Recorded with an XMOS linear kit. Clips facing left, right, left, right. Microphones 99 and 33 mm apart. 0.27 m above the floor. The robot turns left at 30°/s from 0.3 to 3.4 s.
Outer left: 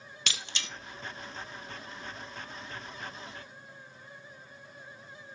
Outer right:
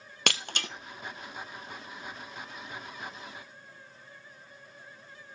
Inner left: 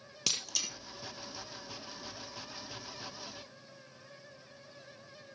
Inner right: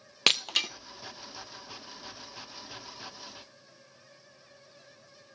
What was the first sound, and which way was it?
Breaking glass, 55° right (ahead or behind).